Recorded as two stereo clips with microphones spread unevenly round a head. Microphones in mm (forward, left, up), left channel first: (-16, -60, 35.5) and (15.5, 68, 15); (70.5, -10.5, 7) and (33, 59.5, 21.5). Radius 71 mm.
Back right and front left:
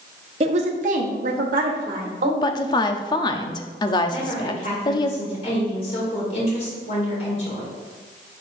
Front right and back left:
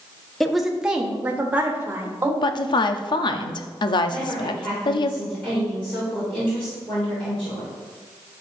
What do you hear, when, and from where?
0.4 s a woman speaking: 30° left, 0.9 m; by 2.3 s 60° left, 1.9 m
2.4 s a woman speaking: 45° right, 0.6 m
4.1 s a woman speaking: 145° right, 2.5 m